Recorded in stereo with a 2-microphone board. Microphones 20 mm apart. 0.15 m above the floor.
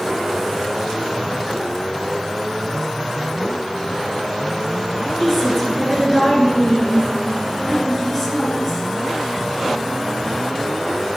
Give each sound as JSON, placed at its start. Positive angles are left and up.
{"t": 5.2, "sound": "a woman speaking", "side_deg": 0, "distance_m": 1.7}